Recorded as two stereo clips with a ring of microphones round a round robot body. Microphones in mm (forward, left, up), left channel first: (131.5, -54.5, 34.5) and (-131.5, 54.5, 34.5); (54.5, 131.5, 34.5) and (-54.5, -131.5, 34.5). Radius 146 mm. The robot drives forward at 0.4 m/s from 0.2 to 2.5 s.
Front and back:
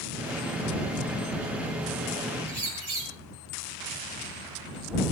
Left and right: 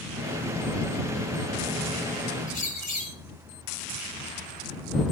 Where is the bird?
130° left, 7.5 m.